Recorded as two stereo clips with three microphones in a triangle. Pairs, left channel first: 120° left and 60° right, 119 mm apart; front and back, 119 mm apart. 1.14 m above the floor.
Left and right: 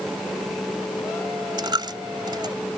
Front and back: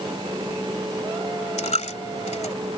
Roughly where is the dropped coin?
Ahead.